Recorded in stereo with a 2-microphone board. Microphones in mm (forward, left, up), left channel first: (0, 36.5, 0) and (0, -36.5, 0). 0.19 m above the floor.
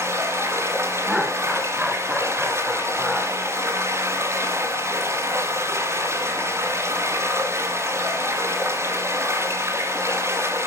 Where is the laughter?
5° right (ahead or behind), 1.9 m.